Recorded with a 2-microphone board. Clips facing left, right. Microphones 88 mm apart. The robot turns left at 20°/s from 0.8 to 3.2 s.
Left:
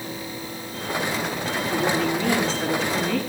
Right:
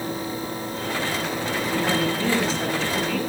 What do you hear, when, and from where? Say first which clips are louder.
1.7 s a woman speaking: left 1 dB; 160° right, 9.5 m; by 3.2 s 170° left, 9.5 m